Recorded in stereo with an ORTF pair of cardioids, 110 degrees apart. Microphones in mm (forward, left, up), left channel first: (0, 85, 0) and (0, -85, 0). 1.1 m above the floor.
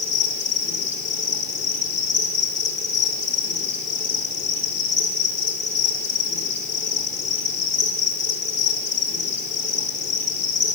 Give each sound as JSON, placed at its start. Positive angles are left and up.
{"t": 0.0, "sound": "an insect", "azimuth_deg": 45, "distance_m": 4.0}